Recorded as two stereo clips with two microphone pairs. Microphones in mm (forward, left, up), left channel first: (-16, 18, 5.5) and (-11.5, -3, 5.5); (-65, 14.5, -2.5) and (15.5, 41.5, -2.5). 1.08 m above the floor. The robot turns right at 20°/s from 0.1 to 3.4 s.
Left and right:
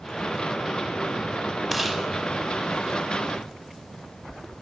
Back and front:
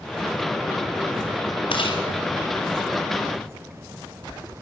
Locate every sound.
1.7 s chewing: 155° right, 5.5 m; by 2.0 s 150° right, 5.5 m